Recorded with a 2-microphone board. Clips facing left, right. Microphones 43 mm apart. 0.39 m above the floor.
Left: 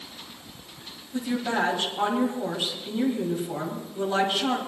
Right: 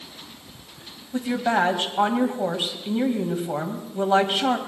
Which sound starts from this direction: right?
A woman speaking, at 1.1 s.